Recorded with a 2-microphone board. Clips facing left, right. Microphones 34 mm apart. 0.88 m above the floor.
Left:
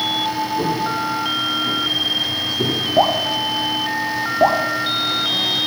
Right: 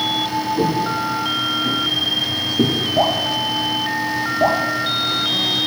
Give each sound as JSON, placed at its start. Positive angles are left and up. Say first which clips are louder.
{"t": 0.6, "sound": "footsteps", "louder": "right 1 dB", "side_deg": -50, "distance_m": 3.5}
{"t": 3.0, "sound": "dripping", "louder": "left 3 dB", "side_deg": 20, "distance_m": 0.9}